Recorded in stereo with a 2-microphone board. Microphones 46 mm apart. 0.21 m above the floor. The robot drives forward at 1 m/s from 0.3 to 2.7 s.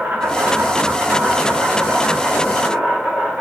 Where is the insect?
50° right (ahead or behind), 3.5 m; by 3.4 s 35° right (ahead or behind), 4.5 m.